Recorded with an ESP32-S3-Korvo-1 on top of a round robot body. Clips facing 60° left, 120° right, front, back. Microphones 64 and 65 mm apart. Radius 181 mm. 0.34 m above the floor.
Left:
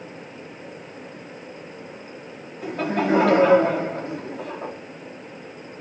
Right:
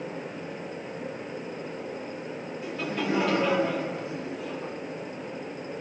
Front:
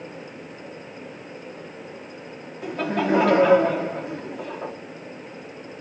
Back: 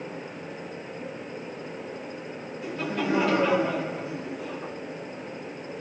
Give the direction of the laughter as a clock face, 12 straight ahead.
11 o'clock.